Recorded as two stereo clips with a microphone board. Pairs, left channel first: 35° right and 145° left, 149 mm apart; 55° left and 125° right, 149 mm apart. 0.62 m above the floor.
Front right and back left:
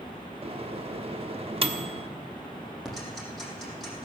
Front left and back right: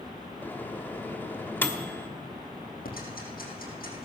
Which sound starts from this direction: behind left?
A microwave, at 0.4 s.